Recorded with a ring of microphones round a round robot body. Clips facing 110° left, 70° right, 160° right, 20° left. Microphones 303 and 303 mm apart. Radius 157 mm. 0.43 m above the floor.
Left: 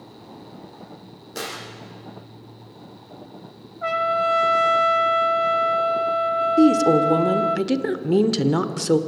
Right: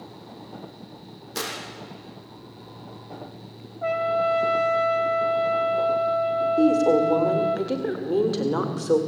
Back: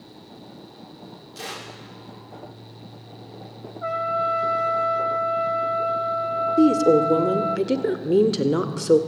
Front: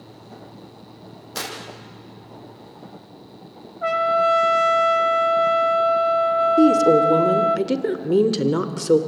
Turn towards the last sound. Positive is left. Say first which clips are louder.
# left 4 dB, front 1 dB
turn(degrees=110)